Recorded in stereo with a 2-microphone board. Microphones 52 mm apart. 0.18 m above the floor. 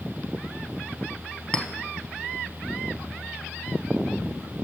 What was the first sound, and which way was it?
A clink, 15° left (ahead or behind).